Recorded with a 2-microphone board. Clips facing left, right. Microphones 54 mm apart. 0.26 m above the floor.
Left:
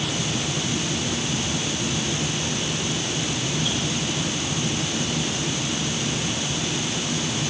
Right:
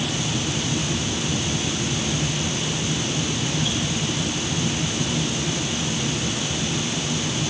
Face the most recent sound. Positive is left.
No sound to turn to.